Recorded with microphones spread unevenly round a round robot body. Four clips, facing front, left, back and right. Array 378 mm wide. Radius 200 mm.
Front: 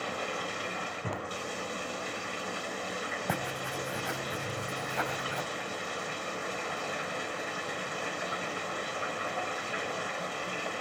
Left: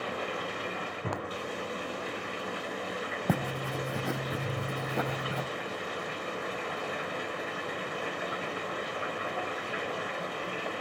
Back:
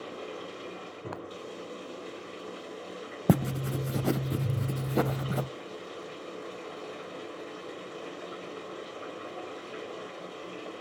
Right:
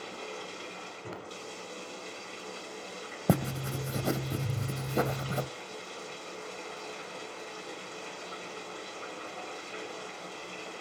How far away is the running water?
About 1.4 m.